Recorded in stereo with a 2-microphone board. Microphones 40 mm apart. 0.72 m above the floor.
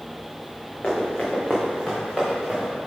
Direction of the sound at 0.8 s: 25° left (ahead or behind).